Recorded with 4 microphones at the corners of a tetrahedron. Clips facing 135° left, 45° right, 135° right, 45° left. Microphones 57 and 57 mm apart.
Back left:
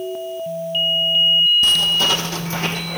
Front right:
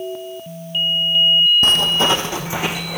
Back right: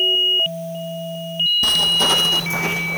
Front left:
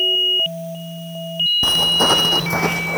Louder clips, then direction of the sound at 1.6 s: Front right 2 dB, front left 3 dB; 10° right.